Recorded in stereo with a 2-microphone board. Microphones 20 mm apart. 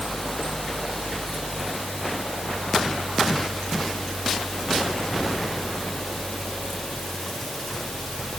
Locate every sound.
Only background noise.